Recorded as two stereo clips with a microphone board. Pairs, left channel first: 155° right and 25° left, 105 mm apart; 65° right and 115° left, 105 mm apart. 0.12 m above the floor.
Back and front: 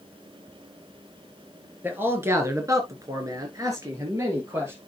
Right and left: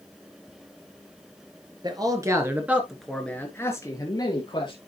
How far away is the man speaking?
About 2 m.